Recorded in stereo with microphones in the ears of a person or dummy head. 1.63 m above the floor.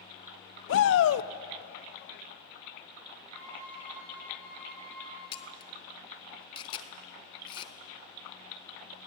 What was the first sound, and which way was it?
A shout, 80° left.